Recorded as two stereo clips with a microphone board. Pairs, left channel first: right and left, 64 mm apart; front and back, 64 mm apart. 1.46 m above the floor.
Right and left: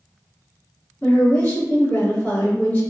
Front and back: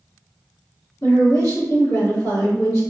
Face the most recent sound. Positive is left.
turn(degrees=-25)